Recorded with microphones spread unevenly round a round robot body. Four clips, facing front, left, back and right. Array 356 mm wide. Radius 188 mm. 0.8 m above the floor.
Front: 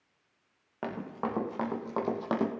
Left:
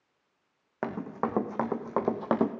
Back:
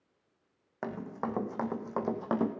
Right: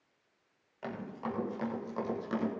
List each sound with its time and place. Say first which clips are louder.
0.8 s running footsteps: left 7 dB, front 1 dB; 90° left, 2 m; by 2.5 s 105° left, 1.2 m